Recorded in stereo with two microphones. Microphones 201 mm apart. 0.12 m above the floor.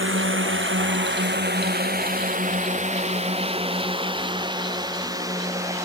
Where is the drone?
80° right; by 5.9 s 15° right (ahead or behind).